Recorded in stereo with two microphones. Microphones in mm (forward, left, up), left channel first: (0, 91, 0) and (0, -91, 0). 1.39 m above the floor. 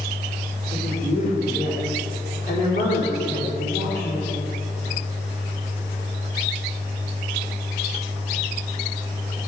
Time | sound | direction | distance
0.7 | a woman speaking | 40° left (ahead or behind) | 3.5 m